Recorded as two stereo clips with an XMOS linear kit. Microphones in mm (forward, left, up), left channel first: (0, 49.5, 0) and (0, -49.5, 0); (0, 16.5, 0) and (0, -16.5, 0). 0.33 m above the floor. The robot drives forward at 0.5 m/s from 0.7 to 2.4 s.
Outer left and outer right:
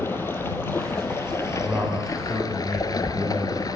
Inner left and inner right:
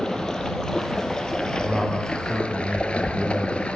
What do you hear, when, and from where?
0.0 s running water: 25° left (ahead or behind), 1.9 m; by 3.8 s 40° left (ahead or behind), 1.2 m
1.6 s a man speaking: 20° right (ahead or behind), 2.5 m; by 3.7 s 15° right (ahead or behind), 3 m